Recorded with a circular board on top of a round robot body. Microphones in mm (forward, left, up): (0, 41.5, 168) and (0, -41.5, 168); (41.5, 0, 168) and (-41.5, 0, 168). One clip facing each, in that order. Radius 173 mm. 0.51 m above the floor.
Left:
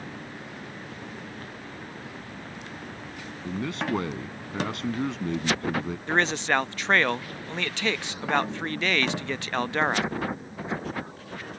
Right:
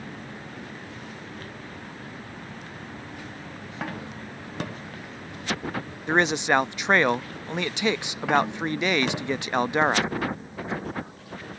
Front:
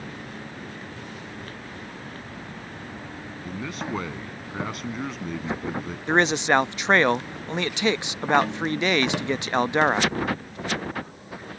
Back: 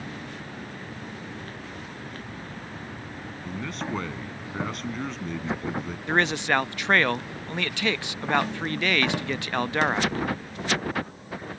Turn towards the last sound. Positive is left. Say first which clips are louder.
# right 3 dB, front 4 dB
turn(degrees=-40)